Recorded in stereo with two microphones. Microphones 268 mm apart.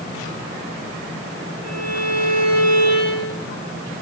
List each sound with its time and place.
1.6 s a violin: 70° right (ahead or behind), 7 m